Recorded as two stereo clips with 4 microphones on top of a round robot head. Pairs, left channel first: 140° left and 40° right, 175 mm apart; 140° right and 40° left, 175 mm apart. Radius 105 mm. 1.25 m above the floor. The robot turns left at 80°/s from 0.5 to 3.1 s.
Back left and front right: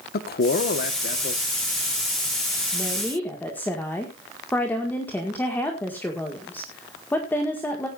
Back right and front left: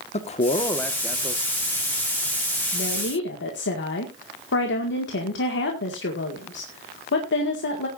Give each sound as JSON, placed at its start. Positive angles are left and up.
{"t": 0.1, "sound": "a man speaking", "azimuth_deg": 170, "distance_m": 1.4}
{"t": 2.7, "sound": "a woman speaking", "azimuth_deg": -110, "distance_m": 1.9}